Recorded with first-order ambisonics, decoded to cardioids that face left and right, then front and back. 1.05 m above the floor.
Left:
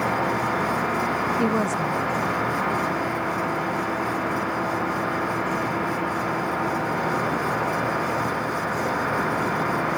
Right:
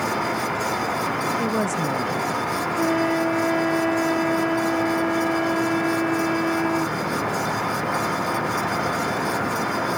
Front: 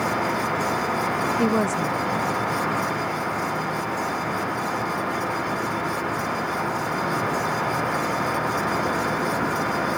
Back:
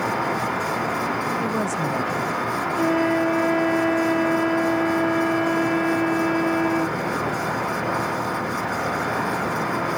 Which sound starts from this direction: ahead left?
A woman speaking, at 1.4 s.